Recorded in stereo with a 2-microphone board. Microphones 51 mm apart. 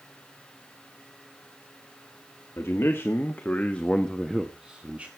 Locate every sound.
2.6 s a man speaking: 55° left (ahead or behind), 1.7 m; by 5.1 s 30° right (ahead or behind), 1.4 m